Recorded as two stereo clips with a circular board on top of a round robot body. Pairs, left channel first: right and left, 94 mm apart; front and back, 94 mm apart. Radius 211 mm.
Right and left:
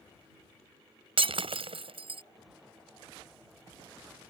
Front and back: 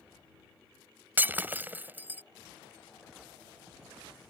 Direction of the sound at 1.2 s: 110° left.